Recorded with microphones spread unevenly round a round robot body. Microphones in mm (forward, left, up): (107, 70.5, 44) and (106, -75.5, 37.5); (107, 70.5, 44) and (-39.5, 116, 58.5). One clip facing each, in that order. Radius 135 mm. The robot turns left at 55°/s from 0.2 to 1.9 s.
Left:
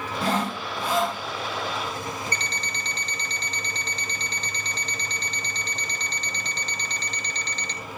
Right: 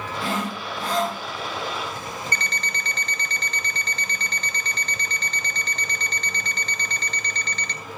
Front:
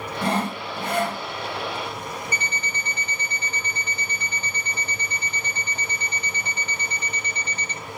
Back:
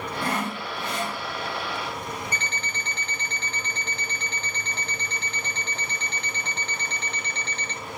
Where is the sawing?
45° left, 1.8 m; by 1.2 s 10° right, 1.8 m.